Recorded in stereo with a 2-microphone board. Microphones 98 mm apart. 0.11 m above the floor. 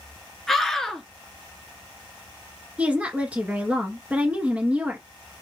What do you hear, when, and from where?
0.5 s a scream: 5° left (ahead or behind), 1.4 m
2.8 s a woman speaking: 15° right (ahead or behind), 1.2 m